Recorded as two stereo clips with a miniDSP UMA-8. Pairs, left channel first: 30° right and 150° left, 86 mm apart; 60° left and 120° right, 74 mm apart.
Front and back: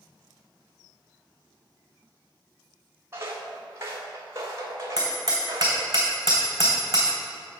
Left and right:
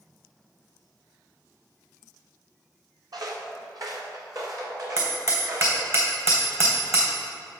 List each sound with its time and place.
3.1 s footsteps: 150° right, 1.9 m; by 5.9 s 160° right, 4 m
5.0 s hammering: 160° right, 3 m